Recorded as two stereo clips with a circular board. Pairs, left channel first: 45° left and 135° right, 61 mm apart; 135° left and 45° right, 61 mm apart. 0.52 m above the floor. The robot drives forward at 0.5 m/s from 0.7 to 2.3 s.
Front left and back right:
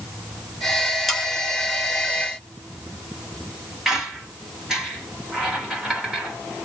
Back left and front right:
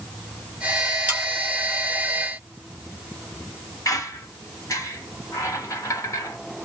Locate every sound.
1.1 s sawing: 40° right, 1.2 m; by 1.3 s 45° right, 1.2 m
3.9 s a squeak: 140° left, 1.1 m